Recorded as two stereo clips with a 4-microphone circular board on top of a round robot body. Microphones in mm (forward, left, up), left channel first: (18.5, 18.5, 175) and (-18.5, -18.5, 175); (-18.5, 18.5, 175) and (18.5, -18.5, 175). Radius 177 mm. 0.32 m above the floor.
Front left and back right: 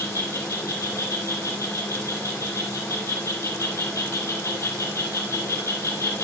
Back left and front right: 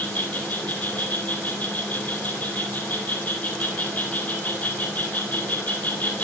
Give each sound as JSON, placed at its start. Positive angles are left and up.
{"t": 0.0, "sound": "an insect", "azimuth_deg": 75, "distance_m": 1.6}